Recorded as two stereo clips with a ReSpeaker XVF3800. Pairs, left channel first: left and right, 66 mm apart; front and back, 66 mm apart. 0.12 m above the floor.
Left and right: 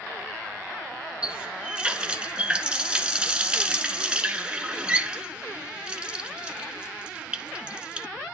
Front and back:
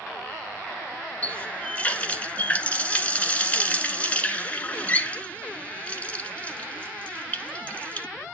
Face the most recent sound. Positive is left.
turn(degrees=-35)